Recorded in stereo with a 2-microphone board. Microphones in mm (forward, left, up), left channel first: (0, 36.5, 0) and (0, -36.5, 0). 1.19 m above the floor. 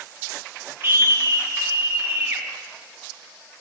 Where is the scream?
30° right (ahead or behind), 0.7 m; by 2.4 s 20° right (ahead or behind), 2.0 m.